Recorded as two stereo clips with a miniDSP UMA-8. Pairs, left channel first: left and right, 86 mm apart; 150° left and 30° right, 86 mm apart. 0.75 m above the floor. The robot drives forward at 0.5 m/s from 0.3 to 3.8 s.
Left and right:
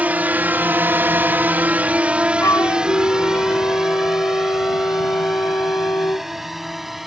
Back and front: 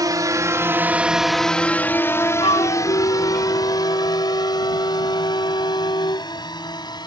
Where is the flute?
140° left; by 6.3 s 145° left.